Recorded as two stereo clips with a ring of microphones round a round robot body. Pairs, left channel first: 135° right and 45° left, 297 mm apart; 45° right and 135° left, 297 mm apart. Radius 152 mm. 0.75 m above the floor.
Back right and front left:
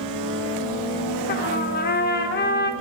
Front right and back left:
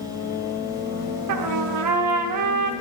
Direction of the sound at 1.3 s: 165° left.